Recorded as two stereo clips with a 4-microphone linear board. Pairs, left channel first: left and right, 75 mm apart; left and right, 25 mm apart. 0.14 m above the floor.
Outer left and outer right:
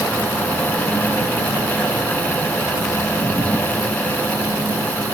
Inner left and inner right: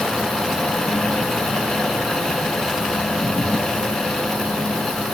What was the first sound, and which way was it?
Only background noise.